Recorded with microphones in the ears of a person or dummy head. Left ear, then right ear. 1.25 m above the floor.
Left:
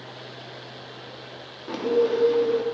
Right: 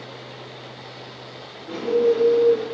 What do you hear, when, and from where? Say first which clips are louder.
1.7 s a bird: right 3 dB; 55° left (ahead or behind), 0.6 m